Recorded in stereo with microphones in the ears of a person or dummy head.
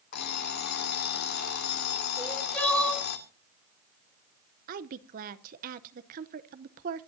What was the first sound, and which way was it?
An alarm clock, 55° left (ahead or behind).